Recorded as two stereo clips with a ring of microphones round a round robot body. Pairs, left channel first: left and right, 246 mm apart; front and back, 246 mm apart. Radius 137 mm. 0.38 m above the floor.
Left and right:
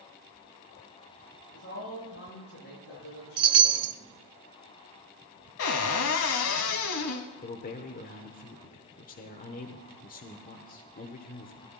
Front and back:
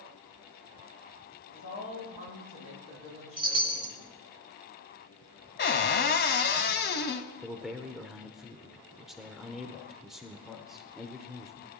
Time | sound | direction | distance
1.5 | a woman speaking | 35° left | 9 m
3.4 | a chime | 110° right | 0.7 m
5.6 | a cupboard door | 50° left | 1.2 m
7.4 | a man speaking | 90° left | 1.0 m